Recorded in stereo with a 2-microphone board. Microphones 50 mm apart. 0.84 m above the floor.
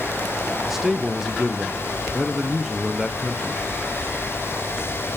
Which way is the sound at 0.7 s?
5° right (ahead or behind).